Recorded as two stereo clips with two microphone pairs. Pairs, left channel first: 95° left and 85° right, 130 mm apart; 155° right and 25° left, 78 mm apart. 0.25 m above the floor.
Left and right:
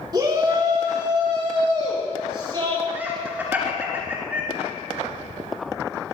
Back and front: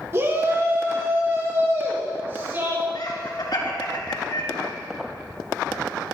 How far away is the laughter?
About 3.5 m.